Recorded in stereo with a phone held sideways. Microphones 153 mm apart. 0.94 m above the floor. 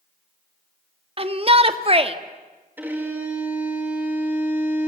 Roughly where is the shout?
Right.